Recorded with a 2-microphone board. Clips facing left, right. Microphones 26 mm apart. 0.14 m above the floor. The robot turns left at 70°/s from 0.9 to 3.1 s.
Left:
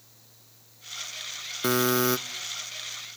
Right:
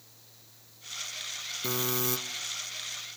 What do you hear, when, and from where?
1.6 s a buzzer: 80° left, 1.0 m; by 2.2 s 45° left, 1.0 m